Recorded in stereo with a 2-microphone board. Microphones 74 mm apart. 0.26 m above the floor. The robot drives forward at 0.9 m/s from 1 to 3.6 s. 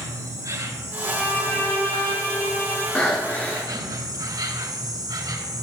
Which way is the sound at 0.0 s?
55° right (ahead or behind).